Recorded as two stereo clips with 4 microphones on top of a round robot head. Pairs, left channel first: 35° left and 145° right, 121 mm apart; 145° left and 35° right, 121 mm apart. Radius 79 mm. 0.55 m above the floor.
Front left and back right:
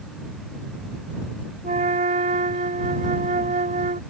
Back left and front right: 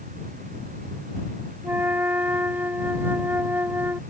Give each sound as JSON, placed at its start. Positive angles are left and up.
{"t": 1.6, "sound": "a flute", "azimuth_deg": -110}